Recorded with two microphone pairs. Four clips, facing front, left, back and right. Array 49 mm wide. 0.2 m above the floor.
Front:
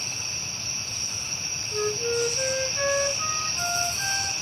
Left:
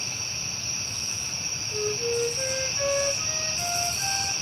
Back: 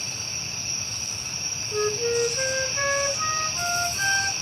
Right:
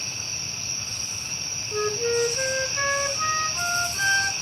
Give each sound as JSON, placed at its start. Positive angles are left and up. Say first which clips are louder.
{"t": 1.7, "sound": "a flute", "louder": "right 3 dB, back 2 dB", "azimuth_deg": -105, "distance_m": 2.0}